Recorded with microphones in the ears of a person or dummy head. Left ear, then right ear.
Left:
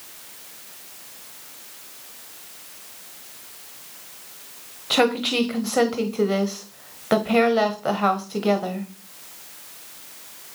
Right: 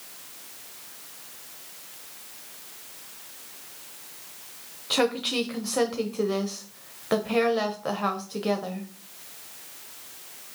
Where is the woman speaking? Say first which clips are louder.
Left 5 dB; 5° left (ahead or behind), 1.0 m.